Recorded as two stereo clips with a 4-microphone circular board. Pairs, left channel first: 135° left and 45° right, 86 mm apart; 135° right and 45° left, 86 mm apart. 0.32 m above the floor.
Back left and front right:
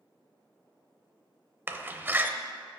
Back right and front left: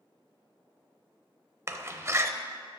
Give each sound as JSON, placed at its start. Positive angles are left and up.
{"t": 1.7, "sound": "a door slam", "azimuth_deg": 10, "distance_m": 0.7}